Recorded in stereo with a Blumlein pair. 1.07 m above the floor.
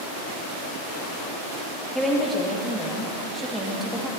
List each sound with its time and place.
1.9 s a woman speaking: 5° left, 1.3 m